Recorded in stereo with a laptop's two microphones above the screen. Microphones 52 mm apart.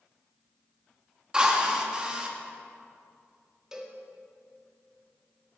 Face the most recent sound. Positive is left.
turn(degrees=-10)  # may be behind; listen again after turning